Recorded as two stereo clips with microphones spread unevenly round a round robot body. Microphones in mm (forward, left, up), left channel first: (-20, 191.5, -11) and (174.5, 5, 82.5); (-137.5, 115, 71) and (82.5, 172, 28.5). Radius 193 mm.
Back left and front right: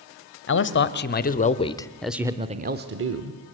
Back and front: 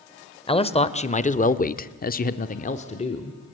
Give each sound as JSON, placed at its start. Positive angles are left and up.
{"t": 0.5, "sound": "a man speaking", "azimuth_deg": 125, "distance_m": 1.8}